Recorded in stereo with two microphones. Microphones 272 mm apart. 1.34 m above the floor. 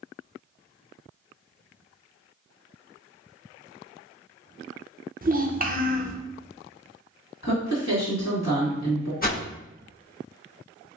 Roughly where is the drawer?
I don't hear a drawer.